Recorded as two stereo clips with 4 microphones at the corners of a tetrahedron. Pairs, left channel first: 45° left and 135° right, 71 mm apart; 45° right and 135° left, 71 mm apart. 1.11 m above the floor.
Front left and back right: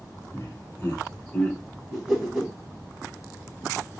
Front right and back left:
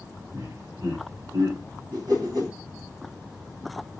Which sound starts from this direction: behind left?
A whoosh, at 1.9 s.